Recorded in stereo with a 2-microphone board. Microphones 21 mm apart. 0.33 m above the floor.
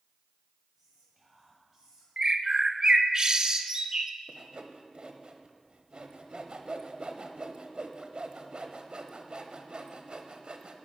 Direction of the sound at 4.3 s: 50° right (ahead or behind).